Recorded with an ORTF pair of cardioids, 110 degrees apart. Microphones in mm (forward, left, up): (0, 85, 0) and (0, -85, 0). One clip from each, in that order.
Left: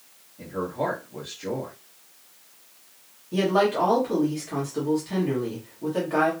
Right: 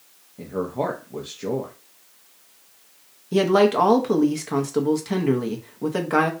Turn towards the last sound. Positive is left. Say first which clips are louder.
# right 4 dB
turn(degrees=-50)